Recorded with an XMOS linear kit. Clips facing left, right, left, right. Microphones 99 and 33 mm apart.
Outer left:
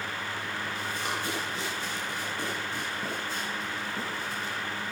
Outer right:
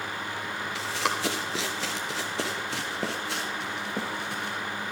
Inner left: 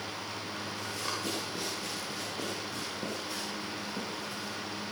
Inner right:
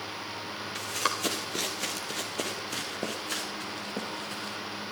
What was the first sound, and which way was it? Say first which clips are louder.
Running footsteps: outer right 6 dB, inner right 8 dB; 80° right.